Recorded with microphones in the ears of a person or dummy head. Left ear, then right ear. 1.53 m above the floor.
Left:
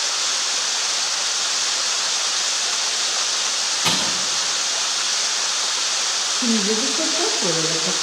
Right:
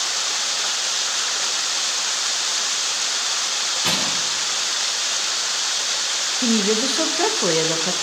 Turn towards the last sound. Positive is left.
turn(degrees=-35)  # may be behind; listen again after turning